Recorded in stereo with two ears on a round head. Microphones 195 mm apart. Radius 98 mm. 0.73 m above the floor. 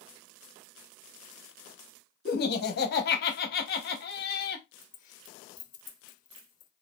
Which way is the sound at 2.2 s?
45° left (ahead or behind).